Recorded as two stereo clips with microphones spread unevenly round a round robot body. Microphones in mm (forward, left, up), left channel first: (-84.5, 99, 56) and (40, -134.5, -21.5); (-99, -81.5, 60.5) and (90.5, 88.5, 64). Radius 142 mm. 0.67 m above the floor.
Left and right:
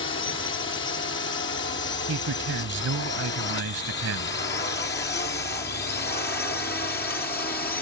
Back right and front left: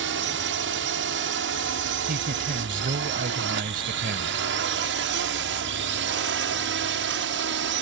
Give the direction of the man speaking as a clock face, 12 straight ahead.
1 o'clock.